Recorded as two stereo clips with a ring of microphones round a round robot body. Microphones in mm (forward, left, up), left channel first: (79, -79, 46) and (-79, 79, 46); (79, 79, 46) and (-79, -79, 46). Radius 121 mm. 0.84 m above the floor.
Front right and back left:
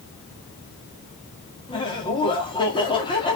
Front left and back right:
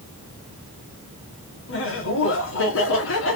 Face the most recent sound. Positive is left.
turn(degrees=25)